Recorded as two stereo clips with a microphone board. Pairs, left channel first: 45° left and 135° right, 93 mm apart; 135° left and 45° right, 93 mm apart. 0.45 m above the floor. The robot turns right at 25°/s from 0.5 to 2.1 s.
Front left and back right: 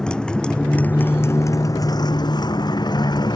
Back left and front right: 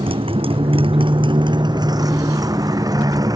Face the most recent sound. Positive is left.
turn(degrees=5)